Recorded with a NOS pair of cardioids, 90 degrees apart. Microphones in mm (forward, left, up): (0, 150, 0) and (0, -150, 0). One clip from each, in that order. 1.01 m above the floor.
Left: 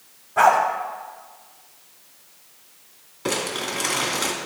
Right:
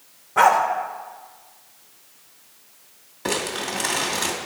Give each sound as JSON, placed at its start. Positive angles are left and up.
{"t": 0.4, "sound": "a dog barking", "azimuth_deg": -35, "distance_m": 1.5}
{"t": 3.2, "sound": "crumpling", "azimuth_deg": -15, "distance_m": 2.5}